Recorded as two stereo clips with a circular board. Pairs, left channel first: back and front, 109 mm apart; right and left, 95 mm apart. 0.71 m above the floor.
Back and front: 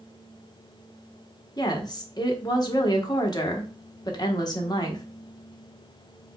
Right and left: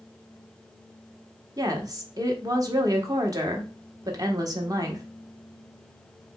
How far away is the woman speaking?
About 1.1 m.